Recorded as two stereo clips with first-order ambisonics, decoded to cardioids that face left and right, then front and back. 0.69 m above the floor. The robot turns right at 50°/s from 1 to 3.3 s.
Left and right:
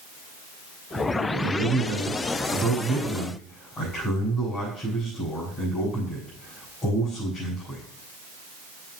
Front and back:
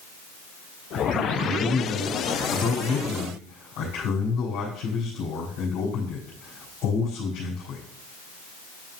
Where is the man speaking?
70° right, 4 m; by 7.8 s 25° left, 4 m.